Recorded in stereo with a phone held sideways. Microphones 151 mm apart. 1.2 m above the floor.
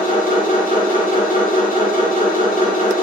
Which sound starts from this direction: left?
A machine running, at 0.0 s.